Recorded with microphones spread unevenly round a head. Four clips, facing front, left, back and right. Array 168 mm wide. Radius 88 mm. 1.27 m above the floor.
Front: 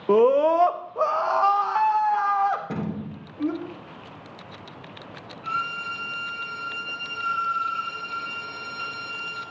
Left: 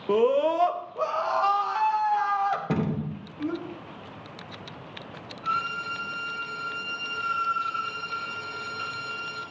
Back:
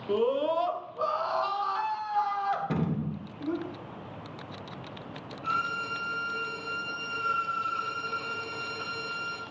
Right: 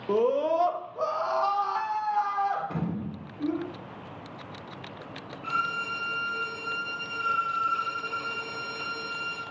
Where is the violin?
115° right, 2.5 m.